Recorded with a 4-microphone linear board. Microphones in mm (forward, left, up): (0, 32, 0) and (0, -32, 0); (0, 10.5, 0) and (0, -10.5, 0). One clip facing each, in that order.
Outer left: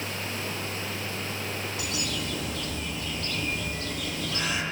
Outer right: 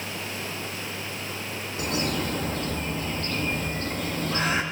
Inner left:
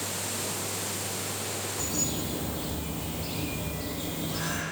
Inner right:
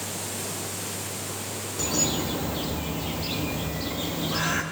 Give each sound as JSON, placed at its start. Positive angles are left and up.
{"t": 1.8, "sound": "a bird", "side_deg": -35, "distance_m": 0.7}